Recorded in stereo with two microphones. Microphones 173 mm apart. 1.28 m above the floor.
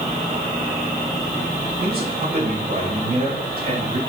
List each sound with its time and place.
1.8 s a man speaking: 60° right (ahead or behind), 5.5 m